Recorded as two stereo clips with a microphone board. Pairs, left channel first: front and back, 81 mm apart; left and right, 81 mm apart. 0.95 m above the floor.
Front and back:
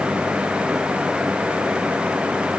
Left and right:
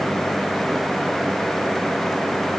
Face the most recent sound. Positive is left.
No sound to turn to.